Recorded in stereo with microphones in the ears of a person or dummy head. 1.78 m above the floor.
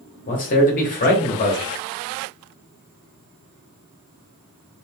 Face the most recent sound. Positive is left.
turn(degrees=45)  # may be behind; listen again after turning